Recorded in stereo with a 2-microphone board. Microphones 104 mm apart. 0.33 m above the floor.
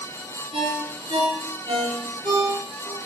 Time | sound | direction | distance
0.5 | a ringtone | 55° right (ahead or behind) | 4 m